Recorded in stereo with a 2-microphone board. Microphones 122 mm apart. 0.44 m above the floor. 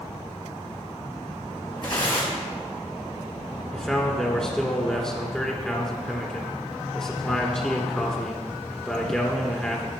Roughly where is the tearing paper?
Left.